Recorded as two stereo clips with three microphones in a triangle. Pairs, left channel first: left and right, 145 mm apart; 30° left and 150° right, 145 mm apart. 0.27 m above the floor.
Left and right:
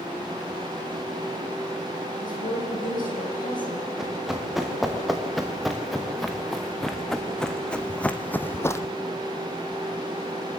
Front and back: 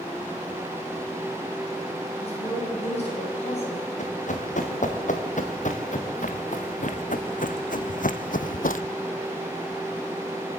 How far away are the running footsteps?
About 3 m.